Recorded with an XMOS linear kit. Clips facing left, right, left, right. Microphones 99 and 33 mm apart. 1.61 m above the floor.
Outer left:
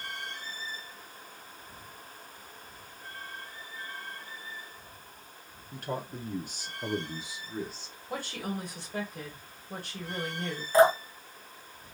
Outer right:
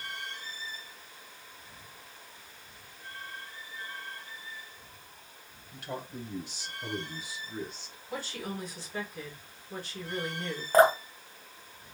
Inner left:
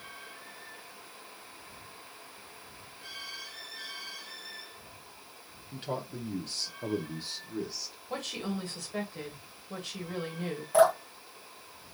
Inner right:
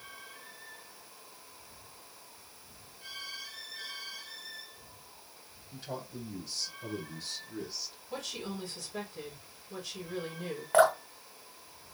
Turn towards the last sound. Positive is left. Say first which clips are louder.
# even, inner left 1 dB
turn(degrees=-50)  # may be behind; listen again after turning